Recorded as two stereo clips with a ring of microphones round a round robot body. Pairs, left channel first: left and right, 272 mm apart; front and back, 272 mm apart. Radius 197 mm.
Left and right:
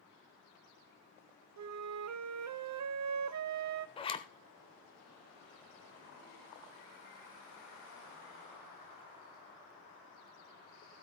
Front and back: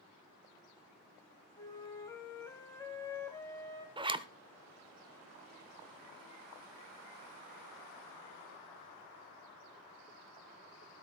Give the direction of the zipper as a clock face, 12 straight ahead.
8 o'clock.